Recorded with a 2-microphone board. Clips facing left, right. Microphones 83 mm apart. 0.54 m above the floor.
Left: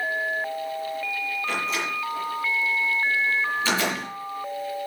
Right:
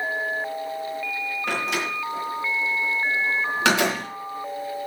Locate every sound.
1.5 s a door slam: 70° right (ahead or behind), 5.5 m